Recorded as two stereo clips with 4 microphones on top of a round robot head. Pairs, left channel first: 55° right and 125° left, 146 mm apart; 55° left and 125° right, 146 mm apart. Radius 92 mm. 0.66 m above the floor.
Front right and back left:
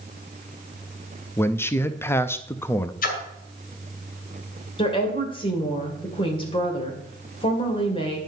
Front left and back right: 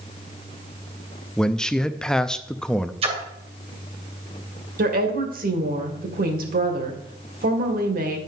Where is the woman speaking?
110° right, 2 m.